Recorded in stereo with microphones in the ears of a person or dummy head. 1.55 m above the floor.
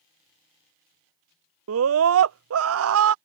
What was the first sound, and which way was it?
A scream, 65° right (ahead or behind).